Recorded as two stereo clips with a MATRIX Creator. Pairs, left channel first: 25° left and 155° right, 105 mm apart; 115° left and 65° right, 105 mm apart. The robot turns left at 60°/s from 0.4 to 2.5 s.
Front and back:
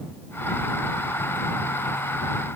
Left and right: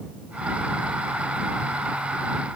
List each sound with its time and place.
Only background noise.